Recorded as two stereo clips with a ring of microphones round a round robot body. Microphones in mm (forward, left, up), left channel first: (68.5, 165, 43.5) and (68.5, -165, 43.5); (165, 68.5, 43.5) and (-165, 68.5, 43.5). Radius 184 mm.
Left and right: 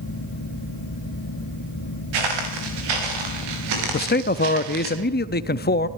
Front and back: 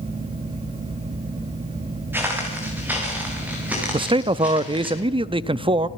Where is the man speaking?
120° left, 0.6 m.